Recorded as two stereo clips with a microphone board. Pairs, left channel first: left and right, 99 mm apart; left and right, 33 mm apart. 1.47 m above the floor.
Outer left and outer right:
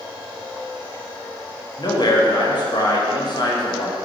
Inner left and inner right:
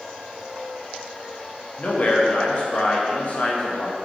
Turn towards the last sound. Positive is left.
turn(degrees=45)  # may be behind; listen again after turning